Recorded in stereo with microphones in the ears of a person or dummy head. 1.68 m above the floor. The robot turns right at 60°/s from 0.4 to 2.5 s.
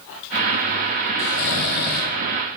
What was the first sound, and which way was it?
Snoring, 75° left.